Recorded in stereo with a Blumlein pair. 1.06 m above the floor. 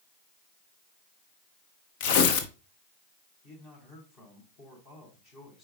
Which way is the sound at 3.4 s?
35° left.